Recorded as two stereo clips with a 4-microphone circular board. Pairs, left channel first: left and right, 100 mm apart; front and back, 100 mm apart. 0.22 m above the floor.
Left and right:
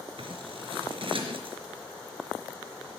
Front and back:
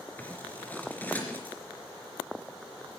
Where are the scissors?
70° right, 3.5 m.